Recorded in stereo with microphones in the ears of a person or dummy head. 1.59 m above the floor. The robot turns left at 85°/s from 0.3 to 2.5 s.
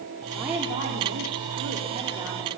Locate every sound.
0.3 s a woman speaking: straight ahead, 4.5 m; by 2.5 s 175° left, 4.5 m